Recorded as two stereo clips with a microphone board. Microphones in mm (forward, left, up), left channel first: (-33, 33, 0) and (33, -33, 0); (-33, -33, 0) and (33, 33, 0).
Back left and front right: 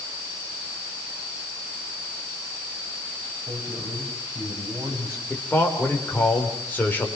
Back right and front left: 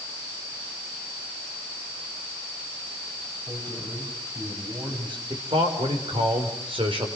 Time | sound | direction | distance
3.5 | a man speaking | 10° left | 7.5 m
5.3 | a man speaking | 65° left | 5 m